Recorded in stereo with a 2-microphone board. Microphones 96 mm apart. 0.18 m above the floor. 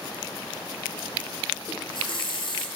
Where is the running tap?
55° left (ahead or behind), 2.5 m.